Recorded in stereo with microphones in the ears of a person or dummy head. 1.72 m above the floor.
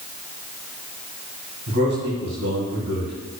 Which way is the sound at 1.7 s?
75° right (ahead or behind).